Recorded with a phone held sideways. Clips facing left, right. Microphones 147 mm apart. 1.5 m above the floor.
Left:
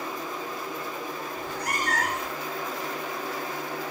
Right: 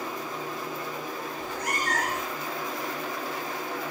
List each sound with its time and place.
1.4 s a cat meowing: 35° left (ahead or behind), 1.0 m